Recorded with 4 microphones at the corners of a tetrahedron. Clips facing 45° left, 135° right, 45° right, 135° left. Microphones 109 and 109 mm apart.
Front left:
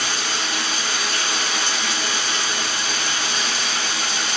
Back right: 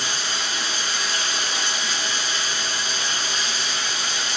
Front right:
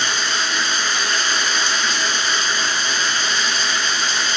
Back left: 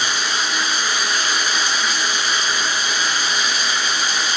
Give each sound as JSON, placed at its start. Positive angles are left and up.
{"t": 0.0, "sound": "running water", "azimuth_deg": 55, "distance_m": 1.9}